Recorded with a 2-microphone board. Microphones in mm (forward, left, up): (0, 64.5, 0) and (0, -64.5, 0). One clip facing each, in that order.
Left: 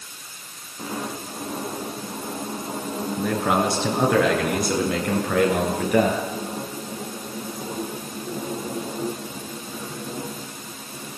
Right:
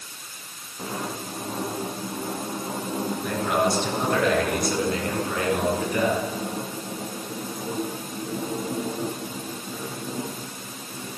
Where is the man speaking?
85° left, 8 m; by 6.2 s 75° left (ahead or behind), 11 m.